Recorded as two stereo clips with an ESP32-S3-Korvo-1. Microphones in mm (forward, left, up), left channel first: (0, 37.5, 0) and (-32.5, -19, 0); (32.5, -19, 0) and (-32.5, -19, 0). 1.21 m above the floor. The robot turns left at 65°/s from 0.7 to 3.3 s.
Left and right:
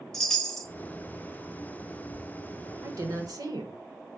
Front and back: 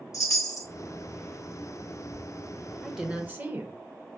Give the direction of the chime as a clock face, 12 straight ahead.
1 o'clock.